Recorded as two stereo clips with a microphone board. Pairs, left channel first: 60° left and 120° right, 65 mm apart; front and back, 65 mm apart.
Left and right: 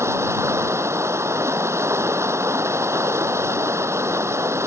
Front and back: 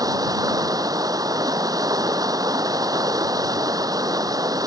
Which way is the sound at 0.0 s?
165° right.